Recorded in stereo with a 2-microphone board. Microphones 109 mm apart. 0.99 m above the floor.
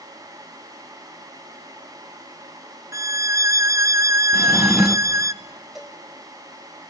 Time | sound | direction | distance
2.9 | a violin | 25° right (ahead or behind) | 0.8 m
4.3 | a drawer | 10° right (ahead or behind) | 0.9 m
5.8 | a cowbell | centre (ahead or behind) | 5 m